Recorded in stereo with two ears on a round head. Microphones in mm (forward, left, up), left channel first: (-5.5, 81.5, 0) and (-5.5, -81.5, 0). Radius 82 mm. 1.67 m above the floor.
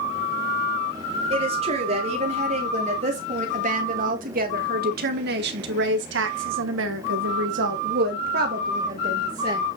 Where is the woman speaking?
35° right (ahead or behind), 3.5 m; by 9.7 s 30° right (ahead or behind), 1.9 m.